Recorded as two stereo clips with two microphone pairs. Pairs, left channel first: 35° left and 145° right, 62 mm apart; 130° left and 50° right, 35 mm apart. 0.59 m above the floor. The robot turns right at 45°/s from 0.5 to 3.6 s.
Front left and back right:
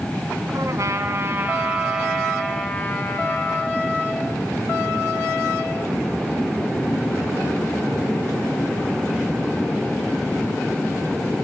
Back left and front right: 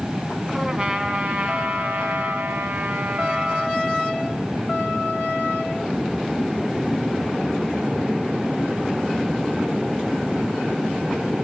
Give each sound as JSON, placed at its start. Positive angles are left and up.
{"t": 0.5, "sound": "a trumpet", "azimuth_deg": -125, "distance_m": 1.7}